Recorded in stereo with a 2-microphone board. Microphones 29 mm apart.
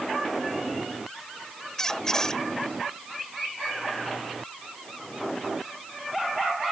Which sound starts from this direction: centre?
A squeak, at 1.8 s.